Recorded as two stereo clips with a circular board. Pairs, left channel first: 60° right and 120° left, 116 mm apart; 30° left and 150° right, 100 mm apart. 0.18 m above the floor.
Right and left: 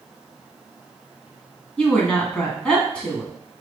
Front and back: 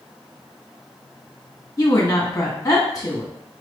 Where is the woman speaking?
15° left, 1.4 m.